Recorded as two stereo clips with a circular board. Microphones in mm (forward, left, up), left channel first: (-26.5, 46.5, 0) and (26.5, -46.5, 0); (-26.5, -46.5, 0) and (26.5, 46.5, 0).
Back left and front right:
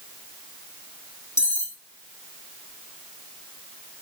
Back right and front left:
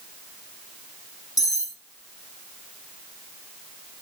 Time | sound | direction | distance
1.4 | cutlery clinking | 175° right | 3.5 m